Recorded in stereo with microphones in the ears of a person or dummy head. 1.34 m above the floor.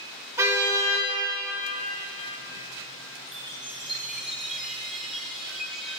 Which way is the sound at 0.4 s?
15° right (ahead or behind).